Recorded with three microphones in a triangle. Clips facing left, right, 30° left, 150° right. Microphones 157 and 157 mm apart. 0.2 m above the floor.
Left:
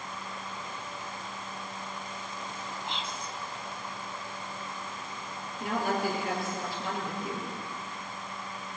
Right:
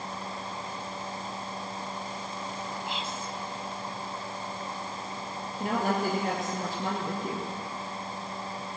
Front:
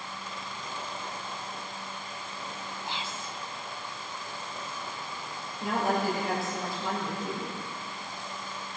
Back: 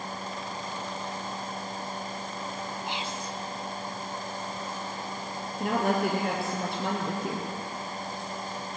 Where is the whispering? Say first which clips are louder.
Right 2 dB, back 3 dB; 165° right, 1.0 m.